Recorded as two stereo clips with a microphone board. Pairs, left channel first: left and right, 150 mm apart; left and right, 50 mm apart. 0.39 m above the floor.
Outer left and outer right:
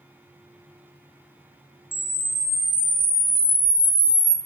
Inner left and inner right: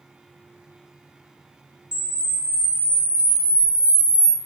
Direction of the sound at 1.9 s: 15° left (ahead or behind).